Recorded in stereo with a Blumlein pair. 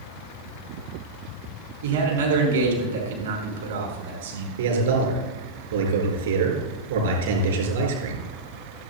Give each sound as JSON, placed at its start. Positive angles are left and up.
{"t": 1.8, "sound": "a man speaking", "azimuth_deg": -65, "distance_m": 4.0}
{"t": 4.6, "sound": "a man speaking", "azimuth_deg": -60, "distance_m": 4.0}